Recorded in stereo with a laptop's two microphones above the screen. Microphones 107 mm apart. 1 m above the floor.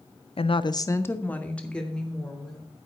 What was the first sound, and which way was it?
A woman speaking, 60° left (ahead or behind).